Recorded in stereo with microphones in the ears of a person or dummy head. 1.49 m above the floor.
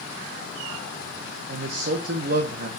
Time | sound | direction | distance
1.5 | a man speaking | 50° right (ahead or behind) | 1.1 m